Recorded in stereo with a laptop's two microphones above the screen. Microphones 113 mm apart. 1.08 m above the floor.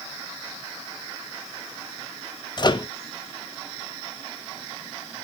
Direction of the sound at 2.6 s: 40° left (ahead or behind).